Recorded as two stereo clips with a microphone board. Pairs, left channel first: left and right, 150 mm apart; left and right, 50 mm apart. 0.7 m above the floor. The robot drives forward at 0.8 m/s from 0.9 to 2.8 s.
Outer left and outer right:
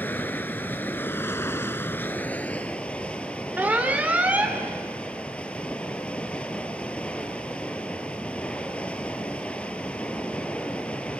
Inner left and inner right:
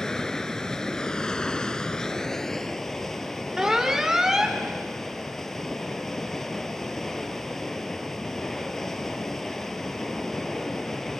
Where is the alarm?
10° right (ahead or behind), 1.7 m.